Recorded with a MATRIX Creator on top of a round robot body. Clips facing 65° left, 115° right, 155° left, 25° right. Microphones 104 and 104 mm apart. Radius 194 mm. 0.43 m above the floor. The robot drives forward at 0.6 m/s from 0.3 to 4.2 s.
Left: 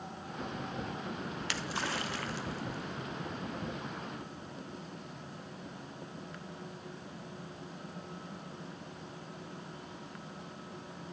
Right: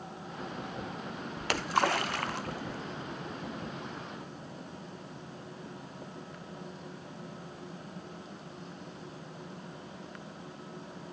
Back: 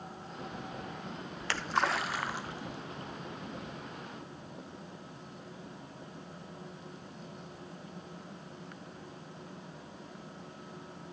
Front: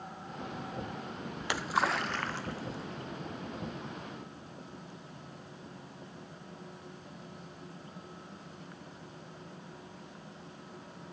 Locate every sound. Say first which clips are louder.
1.4 s a splash: right 13 dB, even; 90° right, 1.0 m; by 3.2 s 145° right, 1.5 m